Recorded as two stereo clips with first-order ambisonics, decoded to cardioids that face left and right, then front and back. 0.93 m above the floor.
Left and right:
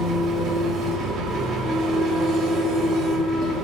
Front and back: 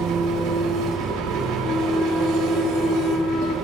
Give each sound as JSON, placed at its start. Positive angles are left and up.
{"t": 0.0, "sound": "an engine running", "azimuth_deg": -160, "distance_m": 2.5}
{"t": 1.6, "sound": "a flute", "azimuth_deg": 35, "distance_m": 0.8}